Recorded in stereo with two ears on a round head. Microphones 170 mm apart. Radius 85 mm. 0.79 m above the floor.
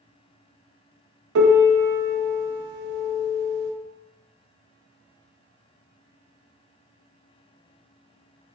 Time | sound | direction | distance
1.4 | a piano | 65° right (ahead or behind) | 0.5 m